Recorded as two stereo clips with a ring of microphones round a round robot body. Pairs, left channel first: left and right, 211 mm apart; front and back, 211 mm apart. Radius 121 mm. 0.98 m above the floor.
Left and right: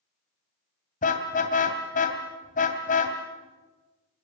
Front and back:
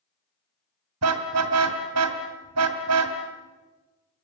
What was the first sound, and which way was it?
A car horn, 150° left.